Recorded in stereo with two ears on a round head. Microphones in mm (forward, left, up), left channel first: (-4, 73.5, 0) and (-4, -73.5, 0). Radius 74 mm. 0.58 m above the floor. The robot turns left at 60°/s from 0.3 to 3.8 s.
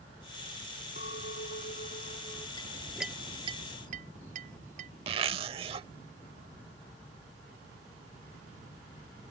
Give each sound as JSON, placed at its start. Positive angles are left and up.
{"t": 1.0, "sound": "a clink", "azimuth_deg": 115}
{"t": 2.6, "sound": "a clink", "side_deg": 25}
{"t": 5.1, "sound": "a zipper", "side_deg": -35}